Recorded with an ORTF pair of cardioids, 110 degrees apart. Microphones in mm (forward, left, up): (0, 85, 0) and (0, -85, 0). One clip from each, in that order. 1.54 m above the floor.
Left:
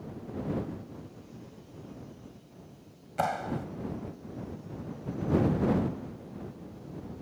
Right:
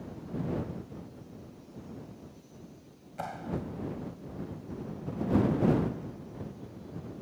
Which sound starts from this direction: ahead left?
A clap, at 3.2 s.